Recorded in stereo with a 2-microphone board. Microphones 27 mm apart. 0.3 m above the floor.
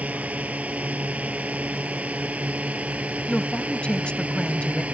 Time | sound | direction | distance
0.0 | a drone | 70° right (ahead or behind) | ?
3.3 | a woman speaking | 45° left (ahead or behind) | ?